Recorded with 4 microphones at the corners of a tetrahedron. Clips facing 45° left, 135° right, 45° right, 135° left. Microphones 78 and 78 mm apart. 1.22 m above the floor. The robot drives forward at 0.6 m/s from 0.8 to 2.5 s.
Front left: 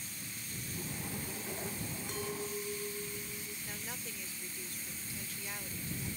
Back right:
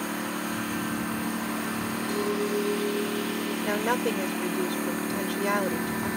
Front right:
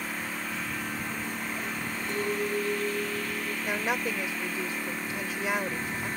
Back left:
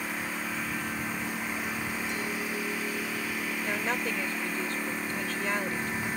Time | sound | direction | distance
0.0 | a lawn mower | 140° right | ?
2.1 | a clink | 90° right | ?
3.6 | a woman speaking | 125° right | ?